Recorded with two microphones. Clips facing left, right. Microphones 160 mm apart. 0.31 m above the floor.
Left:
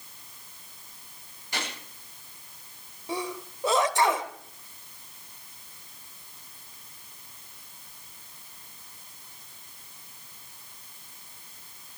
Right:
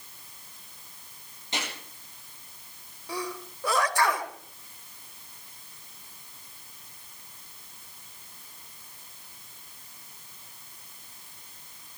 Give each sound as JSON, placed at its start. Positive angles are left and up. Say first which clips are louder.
{"t": 1.5, "sound": "a gunshot", "louder": "even", "side_deg": -20, "distance_m": 6.5}
{"t": 3.1, "sound": "a sneeze", "louder": "left 2 dB", "side_deg": 20, "distance_m": 1.3}